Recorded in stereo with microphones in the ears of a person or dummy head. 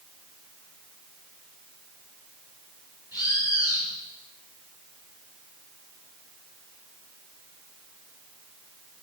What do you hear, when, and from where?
3.1 s a bird: 10° right (ahead or behind), 5 m